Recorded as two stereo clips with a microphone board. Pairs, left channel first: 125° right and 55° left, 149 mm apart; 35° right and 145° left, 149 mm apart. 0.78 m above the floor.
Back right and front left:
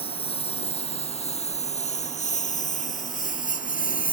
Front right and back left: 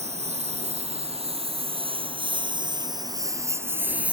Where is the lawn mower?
175° right; by 4.1 s 130° right.